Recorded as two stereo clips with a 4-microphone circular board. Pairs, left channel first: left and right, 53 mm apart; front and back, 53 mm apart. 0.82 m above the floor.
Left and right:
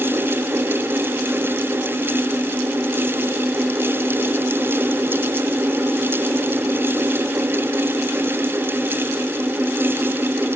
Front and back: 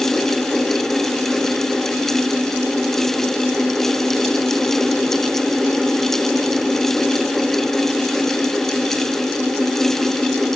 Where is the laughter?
I don't hear laughter.